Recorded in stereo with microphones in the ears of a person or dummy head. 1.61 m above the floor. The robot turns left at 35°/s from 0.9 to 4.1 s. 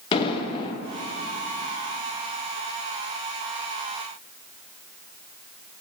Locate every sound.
0.1 s an explosion: 30° left (ahead or behind), 1.0 m